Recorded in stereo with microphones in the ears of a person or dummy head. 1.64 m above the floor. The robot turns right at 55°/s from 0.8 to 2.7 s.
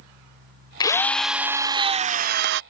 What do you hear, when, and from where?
0.8 s a drill: 155° left; by 2.6 s 105° right